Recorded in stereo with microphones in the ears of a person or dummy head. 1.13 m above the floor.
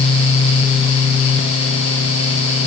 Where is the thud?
No thud in this recording.